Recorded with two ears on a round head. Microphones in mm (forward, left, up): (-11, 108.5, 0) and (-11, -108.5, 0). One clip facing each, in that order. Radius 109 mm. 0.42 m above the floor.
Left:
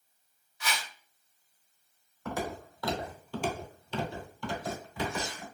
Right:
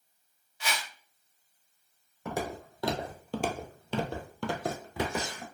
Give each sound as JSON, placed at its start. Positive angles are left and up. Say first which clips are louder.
{"t": 0.6, "sound": "a whoosh", "louder": "right 1 dB", "side_deg": -25, "distance_m": 0.7}
{"t": 2.2, "sound": "footsteps", "louder": "right 1 dB", "side_deg": -15, "distance_m": 1.0}